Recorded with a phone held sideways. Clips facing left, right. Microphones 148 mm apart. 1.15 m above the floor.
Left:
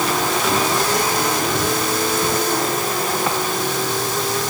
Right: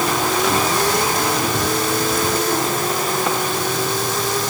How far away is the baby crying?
No baby crying in this recording.